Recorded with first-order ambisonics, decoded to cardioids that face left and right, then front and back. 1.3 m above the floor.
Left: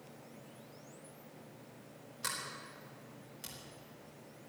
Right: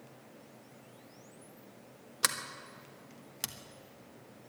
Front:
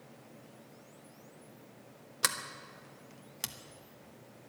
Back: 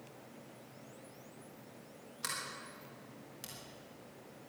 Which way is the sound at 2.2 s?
50° right.